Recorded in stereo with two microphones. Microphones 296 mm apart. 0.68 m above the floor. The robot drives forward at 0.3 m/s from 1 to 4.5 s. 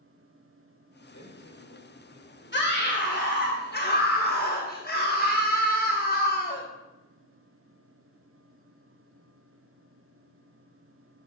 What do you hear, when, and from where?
1.1 s a man speaking: 70° left (ahead or behind), 2 m; by 3.5 s 60° left (ahead or behind), 2.5 m
2.5 s a scream: 35° left (ahead or behind), 1.0 m; by 6.7 s 30° left (ahead or behind), 1.1 m